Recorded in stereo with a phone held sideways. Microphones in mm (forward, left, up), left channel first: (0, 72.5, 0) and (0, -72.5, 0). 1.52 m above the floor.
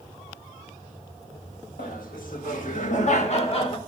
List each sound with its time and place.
1.8 s laughter: 80° left, 2.5 m; by 3.8 s 35° left (ahead or behind), 1.7 m